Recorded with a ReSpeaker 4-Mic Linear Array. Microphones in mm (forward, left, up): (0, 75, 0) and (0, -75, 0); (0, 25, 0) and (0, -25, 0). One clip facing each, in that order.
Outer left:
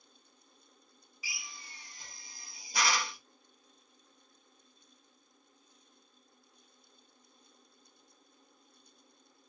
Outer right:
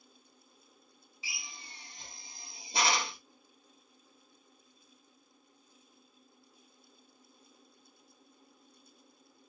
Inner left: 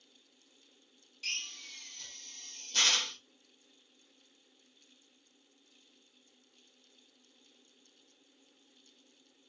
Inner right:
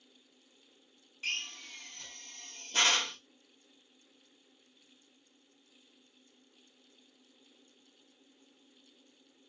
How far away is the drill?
About 0.8 m.